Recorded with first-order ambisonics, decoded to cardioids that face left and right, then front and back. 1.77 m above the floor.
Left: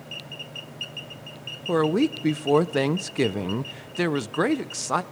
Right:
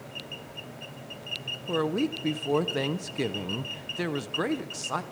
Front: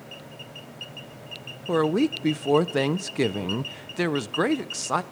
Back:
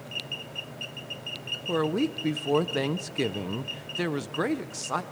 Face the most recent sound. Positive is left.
turn(degrees=50)